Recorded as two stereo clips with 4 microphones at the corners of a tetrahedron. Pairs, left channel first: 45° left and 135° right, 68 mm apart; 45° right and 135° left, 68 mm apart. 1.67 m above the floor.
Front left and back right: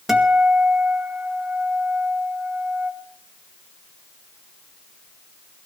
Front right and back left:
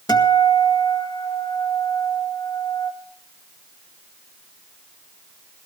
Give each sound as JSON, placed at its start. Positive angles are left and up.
{"t": 0.1, "sound": "a guitar", "azimuth_deg": -50, "distance_m": 2.0}